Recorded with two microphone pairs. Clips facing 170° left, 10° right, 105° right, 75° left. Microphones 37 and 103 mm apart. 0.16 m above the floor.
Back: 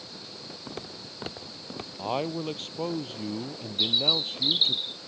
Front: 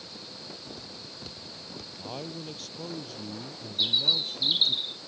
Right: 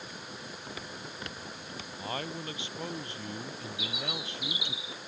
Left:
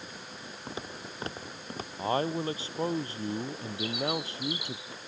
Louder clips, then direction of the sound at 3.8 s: Back 1 dB, left 9 dB; 80° left.